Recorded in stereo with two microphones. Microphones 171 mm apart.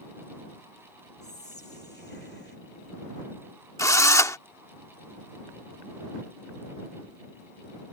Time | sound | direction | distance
1.2 | whispering | 65° left (ahead or behind) | ?
3.8 | a drill | 15° left (ahead or behind) | ?